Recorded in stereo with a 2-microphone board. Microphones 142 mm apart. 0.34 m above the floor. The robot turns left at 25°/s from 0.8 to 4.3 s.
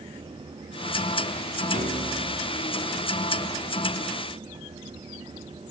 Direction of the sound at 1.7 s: 70° right (ahead or behind).